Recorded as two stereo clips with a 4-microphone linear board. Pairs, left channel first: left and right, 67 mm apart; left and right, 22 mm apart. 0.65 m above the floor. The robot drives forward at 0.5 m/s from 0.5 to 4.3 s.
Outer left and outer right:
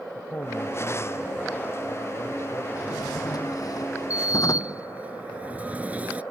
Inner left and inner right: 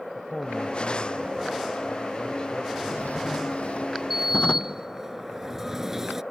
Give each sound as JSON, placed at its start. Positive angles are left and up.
{"t": 0.1, "sound": "a man speaking", "side_deg": 35}
{"t": 2.8, "sound": "a drawer", "side_deg": 65}
{"t": 4.1, "sound": "a sliding door", "side_deg": -20}